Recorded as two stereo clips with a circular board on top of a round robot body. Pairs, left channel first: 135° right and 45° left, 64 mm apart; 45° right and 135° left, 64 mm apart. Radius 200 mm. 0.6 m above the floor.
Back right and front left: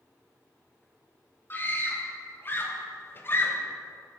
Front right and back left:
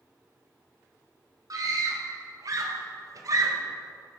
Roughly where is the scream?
Behind.